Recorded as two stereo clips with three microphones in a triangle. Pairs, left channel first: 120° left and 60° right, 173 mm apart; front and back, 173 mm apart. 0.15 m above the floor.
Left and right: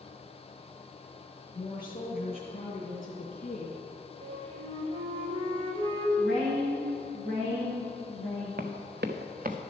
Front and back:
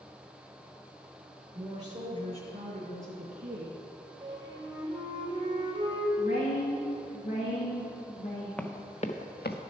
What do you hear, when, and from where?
1.6 s a woman speaking: 165° left, 1.4 m
4.2 s a flute: 115° right, 1.5 m
6.2 s a woman speaking: 45° right, 2.5 m
8.6 s running footsteps: 85° right, 1.0 m; by 9.6 s 20° right, 1.2 m